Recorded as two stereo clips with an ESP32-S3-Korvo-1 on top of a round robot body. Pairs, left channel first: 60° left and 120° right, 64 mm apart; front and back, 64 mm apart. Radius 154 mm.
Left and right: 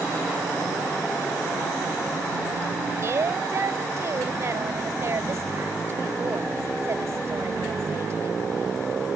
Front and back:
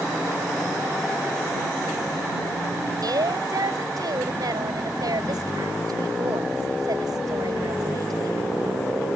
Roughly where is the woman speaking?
Behind.